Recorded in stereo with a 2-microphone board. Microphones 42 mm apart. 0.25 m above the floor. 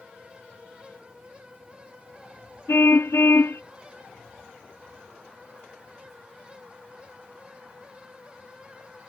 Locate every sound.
2.7 s a car horn: 65° left (ahead or behind)